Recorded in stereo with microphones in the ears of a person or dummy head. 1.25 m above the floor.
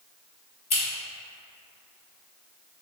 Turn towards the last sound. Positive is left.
turn(degrees=25)  # may be behind; listen again after turning